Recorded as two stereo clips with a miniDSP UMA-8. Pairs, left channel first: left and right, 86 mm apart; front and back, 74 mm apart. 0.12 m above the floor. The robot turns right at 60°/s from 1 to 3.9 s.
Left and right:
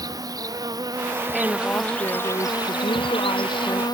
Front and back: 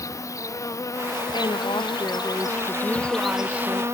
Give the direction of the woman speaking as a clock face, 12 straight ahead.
12 o'clock.